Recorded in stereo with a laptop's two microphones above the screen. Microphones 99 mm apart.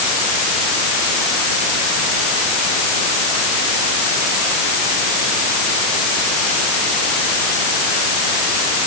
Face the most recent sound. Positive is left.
No sound to turn to.